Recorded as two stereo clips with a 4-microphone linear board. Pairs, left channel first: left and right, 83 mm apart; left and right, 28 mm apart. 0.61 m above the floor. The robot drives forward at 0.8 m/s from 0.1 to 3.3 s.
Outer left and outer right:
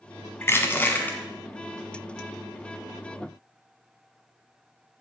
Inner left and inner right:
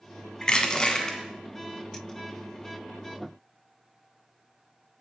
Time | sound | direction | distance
0.4 | crushing | 30° left (ahead or behind) | 1.3 m